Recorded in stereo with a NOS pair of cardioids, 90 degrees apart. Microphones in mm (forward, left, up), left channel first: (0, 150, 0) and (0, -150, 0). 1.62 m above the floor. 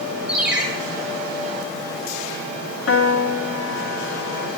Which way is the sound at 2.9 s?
50° left.